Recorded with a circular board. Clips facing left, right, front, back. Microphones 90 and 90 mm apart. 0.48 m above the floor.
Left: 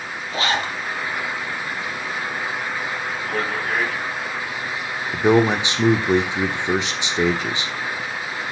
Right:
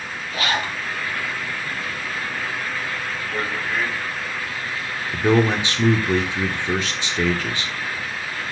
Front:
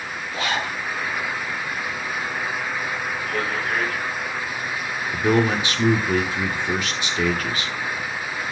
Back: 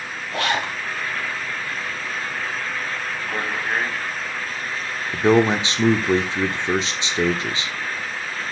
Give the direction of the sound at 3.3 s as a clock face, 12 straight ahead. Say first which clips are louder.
Left 2 dB, even; 8 o'clock.